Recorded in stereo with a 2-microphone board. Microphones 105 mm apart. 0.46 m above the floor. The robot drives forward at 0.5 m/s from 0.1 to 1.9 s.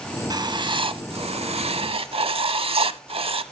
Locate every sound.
0.3 s writing: 40° right (ahead or behind), 0.8 m; by 3.4 s 60° right (ahead or behind), 0.6 m